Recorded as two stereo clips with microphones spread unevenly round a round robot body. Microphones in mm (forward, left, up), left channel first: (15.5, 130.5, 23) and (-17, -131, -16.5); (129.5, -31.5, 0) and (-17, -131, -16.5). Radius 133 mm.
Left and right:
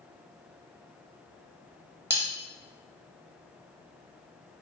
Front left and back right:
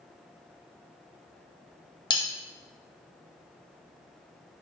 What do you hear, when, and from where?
2.1 s cutlery clinking: 30° right, 0.7 m